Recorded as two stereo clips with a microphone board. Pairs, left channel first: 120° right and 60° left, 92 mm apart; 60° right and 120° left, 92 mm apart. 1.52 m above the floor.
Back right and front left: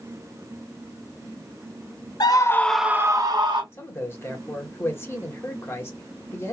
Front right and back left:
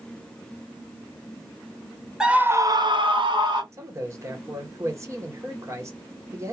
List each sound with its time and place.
2.2 s a scream: 155° right, 0.8 m; by 3.6 s 90° left, 1.1 m
3.7 s a man speaking: straight behind, 1.2 m